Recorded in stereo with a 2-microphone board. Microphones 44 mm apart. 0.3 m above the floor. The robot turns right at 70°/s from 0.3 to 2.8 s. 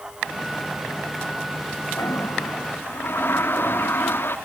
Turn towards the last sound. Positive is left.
turn(degrees=130)